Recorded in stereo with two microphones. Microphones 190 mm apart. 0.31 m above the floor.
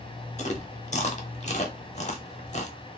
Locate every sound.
0.4 s chewing: 40° left (ahead or behind), 0.6 m